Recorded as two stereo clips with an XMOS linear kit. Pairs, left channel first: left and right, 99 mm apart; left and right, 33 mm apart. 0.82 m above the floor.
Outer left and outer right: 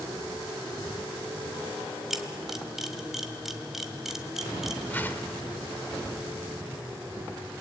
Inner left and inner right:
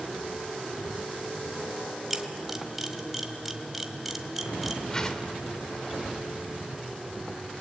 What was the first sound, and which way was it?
A camera shutter, 5° right (ahead or behind).